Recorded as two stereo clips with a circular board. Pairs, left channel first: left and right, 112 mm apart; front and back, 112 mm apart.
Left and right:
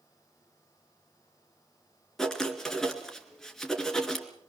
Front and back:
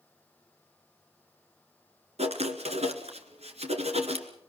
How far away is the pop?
I don't hear a pop.